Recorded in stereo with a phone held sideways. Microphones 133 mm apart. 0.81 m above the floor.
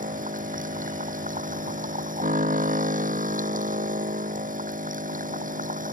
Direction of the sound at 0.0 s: 90° right.